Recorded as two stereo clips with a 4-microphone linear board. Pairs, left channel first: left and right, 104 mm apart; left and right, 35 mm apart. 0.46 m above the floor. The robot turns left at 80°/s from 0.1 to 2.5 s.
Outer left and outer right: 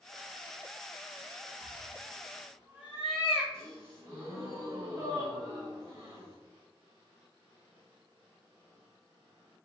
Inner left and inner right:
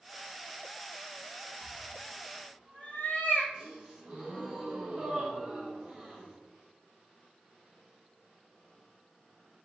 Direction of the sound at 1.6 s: 5° right (ahead or behind).